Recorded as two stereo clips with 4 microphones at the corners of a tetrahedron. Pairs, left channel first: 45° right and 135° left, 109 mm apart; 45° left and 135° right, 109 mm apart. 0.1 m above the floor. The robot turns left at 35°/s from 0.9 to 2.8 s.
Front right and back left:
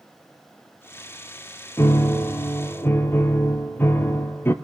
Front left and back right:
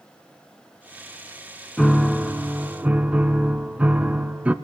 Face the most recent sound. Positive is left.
turn(degrees=-75)